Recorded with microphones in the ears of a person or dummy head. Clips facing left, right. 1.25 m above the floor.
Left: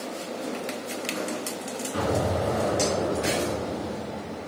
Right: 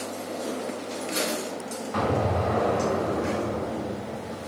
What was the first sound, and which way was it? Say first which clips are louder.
An explosion: right 1 dB; 70° right (ahead or behind).